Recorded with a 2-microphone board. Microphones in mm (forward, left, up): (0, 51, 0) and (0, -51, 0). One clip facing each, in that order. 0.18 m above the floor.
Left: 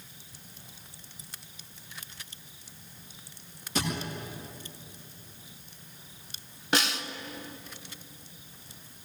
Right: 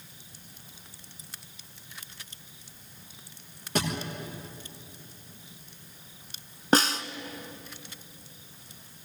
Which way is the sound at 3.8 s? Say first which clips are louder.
Right 2 dB; 55° right (ahead or behind).